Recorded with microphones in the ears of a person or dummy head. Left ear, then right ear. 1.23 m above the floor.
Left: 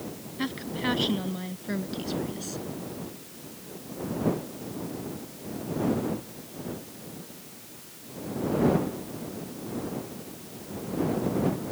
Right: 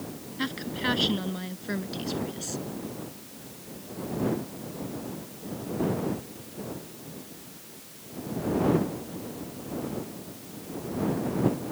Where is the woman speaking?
10° right (ahead or behind); by 2.6 s 5° right (ahead or behind).